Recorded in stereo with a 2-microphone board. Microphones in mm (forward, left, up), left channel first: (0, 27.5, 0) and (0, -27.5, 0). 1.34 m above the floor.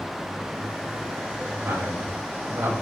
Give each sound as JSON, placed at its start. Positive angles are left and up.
{"t": 1.6, "sound": "a man speaking", "side_deg": -70, "distance_m": 5.0}